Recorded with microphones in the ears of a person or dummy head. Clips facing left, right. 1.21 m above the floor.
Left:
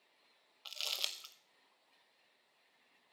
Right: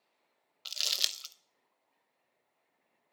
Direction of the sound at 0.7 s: 15° right (ahead or behind).